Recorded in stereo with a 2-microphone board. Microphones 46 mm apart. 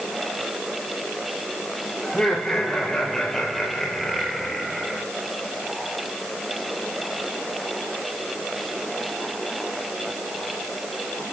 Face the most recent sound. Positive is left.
turn(degrees=-5)  # may be behind; listen again after turning